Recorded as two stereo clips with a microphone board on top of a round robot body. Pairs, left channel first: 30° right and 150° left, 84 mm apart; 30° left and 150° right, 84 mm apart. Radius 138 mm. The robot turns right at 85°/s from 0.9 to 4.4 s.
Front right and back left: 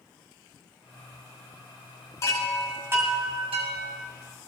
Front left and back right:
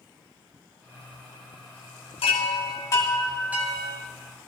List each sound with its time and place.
2.2 s a chime: 25° left, 2 m; by 4.0 s 175° left, 2 m